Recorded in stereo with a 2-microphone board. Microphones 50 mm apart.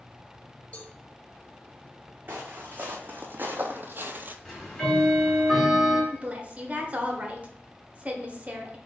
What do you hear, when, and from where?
0.7 s a cowbell: 30° left (ahead or behind), 1.1 m
2.3 s footsteps: 40° right (ahead or behind), 1.6 m
4.5 s ticking: 10° left (ahead or behind), 1.8 m
6.1 s a woman speaking: 30° right (ahead or behind), 1.0 m